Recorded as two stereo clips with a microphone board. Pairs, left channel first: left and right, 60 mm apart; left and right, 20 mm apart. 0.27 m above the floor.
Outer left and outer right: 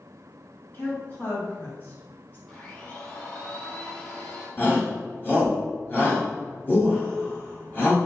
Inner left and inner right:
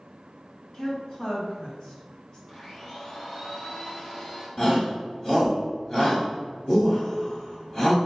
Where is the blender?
15° left (ahead or behind), 1.8 m.